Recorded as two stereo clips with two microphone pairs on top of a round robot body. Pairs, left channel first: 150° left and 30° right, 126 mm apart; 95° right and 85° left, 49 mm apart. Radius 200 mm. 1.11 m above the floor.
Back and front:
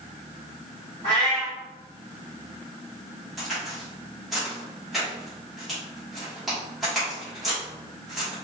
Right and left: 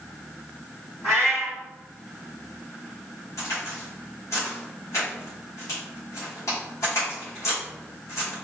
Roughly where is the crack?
Behind right.